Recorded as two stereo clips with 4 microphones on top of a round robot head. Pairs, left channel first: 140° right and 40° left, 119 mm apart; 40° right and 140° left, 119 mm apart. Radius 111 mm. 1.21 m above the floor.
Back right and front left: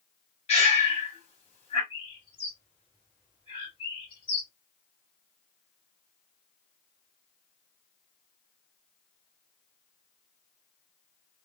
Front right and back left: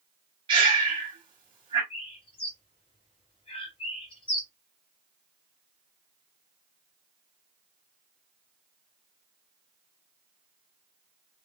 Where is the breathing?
175° right, 1.2 m.